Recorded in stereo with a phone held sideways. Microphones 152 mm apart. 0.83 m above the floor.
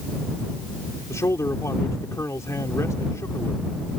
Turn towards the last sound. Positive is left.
turn(degrees=20)  # may be behind; listen again after turning